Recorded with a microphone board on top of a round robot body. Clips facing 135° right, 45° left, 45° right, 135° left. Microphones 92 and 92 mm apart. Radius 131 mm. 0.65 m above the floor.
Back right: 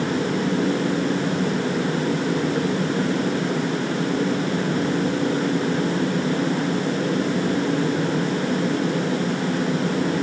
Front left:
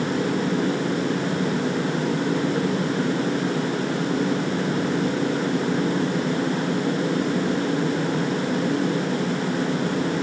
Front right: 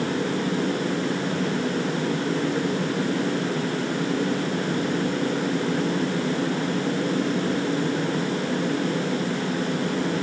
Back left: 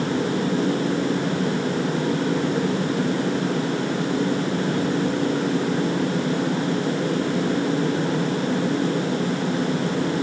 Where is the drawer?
No drawer in this recording.